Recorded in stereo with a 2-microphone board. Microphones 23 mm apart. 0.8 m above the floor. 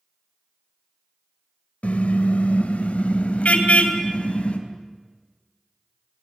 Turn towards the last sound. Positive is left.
turn(degrees=65)  # may be behind; listen again after turning